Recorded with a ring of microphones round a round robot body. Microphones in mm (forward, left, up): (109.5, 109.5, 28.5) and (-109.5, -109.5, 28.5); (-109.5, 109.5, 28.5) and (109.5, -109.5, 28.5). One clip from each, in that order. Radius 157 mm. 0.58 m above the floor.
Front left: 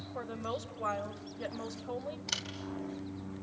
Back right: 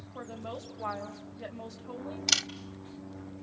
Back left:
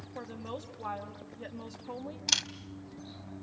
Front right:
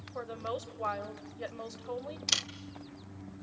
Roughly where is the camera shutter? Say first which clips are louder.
Back right 11 dB, back left 2 dB; behind right.